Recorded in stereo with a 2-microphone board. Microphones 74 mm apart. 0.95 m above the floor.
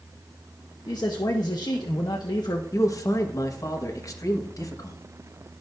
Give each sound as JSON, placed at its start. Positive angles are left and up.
{"t": 0.9, "sound": "a man speaking", "side_deg": 55, "distance_m": 0.9}
{"t": 2.7, "sound": "a man speaking", "side_deg": 45, "distance_m": 1.1}